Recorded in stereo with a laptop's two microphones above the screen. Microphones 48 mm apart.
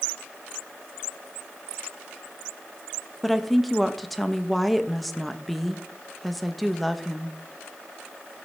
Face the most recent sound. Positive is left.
turn(degrees=0)  # may be behind; listen again after turning